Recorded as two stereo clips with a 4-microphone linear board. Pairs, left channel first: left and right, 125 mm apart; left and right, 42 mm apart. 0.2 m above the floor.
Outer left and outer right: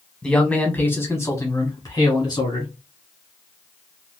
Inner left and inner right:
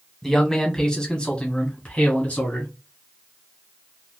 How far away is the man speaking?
About 1.3 m.